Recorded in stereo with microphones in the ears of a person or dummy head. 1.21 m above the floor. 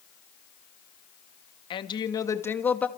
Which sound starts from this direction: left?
A woman speaking, at 1.7 s.